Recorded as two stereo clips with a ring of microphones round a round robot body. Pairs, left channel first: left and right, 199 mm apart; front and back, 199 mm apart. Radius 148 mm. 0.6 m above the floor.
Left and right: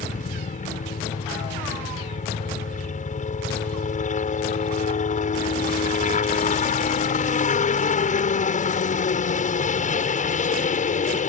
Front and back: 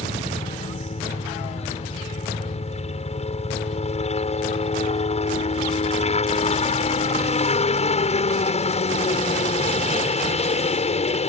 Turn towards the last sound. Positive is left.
turn(degrees=50)